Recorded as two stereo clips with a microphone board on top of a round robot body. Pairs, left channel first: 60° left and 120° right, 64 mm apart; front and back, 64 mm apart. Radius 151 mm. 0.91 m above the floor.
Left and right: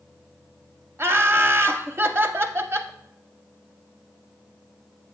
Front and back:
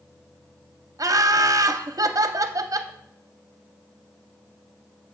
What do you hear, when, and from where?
1.0 s laughter: 170° right, 0.6 m